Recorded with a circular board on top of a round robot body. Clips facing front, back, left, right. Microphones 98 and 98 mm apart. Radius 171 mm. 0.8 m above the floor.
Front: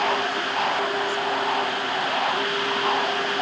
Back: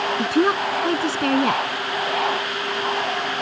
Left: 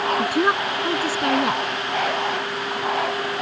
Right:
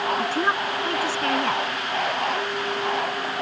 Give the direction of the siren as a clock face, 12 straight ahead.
I don't hear a siren.